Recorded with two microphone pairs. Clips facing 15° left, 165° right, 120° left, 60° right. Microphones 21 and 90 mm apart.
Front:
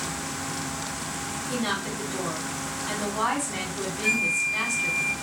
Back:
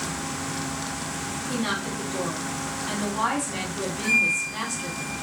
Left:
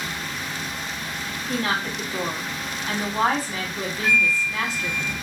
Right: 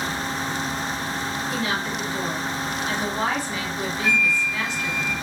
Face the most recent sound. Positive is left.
turn(degrees=100)